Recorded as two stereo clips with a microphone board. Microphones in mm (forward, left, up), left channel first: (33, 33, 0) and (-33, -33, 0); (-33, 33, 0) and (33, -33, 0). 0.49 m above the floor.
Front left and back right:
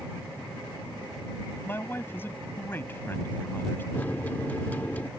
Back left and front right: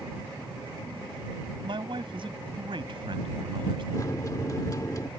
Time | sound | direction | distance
1.6 | a man speaking | 20° right | ?
3.9 | a microwave | 110° left | ?